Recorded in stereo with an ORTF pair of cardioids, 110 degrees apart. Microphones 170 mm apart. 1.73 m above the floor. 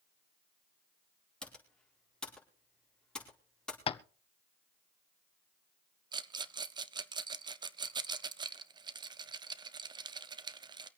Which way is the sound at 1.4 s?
5° left.